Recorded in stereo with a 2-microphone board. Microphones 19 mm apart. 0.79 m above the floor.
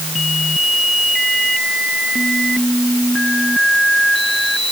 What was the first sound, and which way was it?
Only background noise.